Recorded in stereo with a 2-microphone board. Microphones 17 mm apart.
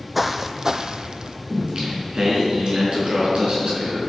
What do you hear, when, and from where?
0.1 s footsteps: 10° right (ahead or behind), 0.9 m; by 1.4 s 60° right (ahead or behind), 0.8 m
1.5 s singing: 55° right (ahead or behind), 4.5 m